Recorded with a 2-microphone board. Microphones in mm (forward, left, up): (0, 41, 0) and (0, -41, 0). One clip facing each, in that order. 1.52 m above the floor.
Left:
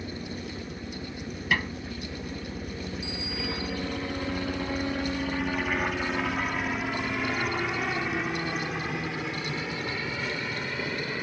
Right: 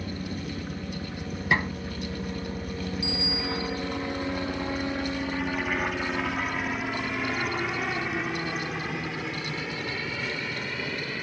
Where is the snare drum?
25° right (ahead or behind).